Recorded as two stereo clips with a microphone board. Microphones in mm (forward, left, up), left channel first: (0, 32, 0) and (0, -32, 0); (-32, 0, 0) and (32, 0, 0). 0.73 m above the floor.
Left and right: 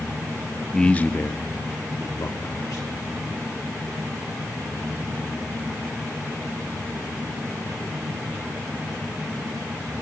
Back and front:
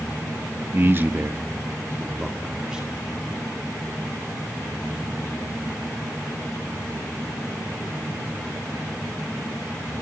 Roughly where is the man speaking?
Ahead.